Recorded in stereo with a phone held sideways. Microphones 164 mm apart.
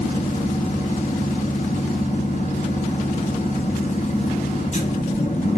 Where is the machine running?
45° left (ahead or behind), 0.8 m.